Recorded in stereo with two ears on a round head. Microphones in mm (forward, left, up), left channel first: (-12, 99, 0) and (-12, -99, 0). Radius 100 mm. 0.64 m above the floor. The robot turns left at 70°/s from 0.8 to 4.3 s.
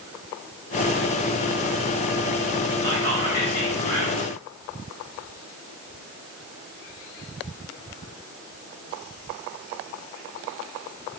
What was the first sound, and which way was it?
Whispering, 145° left.